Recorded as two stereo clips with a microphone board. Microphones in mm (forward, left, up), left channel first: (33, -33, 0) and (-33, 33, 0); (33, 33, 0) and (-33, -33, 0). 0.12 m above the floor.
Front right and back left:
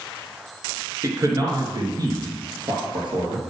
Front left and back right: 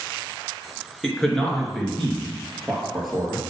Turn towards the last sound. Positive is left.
turn(degrees=135)